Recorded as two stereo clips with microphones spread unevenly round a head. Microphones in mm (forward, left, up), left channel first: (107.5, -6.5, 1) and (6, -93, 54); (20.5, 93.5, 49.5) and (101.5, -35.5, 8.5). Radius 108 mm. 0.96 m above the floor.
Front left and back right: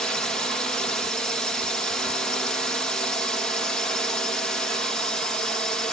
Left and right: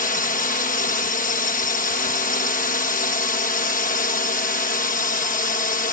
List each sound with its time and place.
0.0 s a drone: 105° left